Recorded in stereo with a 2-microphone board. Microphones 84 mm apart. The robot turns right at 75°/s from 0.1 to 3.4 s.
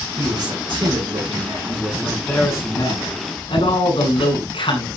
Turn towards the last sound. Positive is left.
turn(degrees=100)